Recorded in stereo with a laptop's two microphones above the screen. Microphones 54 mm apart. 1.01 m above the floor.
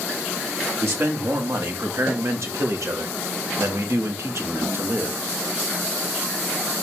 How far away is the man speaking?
About 2.5 m.